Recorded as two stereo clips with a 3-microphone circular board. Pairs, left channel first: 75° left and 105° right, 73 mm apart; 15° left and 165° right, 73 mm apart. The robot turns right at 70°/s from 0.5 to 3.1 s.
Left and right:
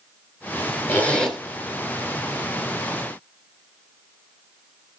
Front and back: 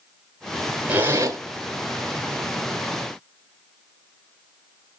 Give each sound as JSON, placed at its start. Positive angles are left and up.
{"t": 0.9, "sound": "a zipper", "azimuth_deg": 130, "distance_m": 1.1}